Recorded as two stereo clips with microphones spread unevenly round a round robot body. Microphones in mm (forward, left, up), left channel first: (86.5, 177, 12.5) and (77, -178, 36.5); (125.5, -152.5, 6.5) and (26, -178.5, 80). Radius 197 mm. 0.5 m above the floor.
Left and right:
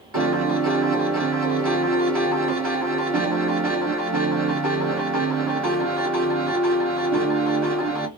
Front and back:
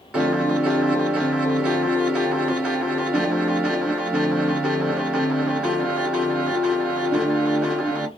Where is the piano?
45° right, 1.5 m.